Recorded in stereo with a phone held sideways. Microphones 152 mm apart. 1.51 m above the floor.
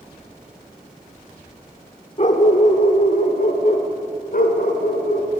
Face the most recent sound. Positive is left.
turn(degrees=70)  # may be behind; listen again after turning